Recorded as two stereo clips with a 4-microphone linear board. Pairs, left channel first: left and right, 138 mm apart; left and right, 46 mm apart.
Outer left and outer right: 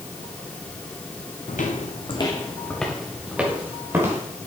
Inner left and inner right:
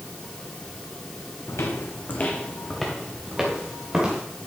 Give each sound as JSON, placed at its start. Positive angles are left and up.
{"t": 1.5, "sound": "footsteps", "side_deg": 70, "distance_m": 1.4}